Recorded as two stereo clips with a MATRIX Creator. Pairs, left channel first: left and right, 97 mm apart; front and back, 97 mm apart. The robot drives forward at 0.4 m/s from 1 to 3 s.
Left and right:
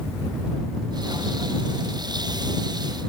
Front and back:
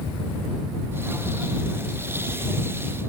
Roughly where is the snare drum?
No snare drum in this recording.